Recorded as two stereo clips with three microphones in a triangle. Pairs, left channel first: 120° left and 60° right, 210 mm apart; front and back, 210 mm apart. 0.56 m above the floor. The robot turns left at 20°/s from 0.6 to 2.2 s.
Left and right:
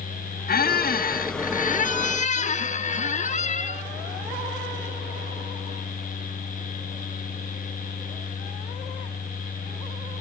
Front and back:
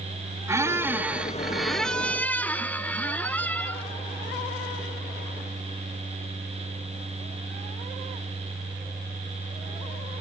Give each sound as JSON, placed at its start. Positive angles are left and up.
{"t": 0.5, "sound": "a squeak", "azimuth_deg": 110, "distance_m": 0.5}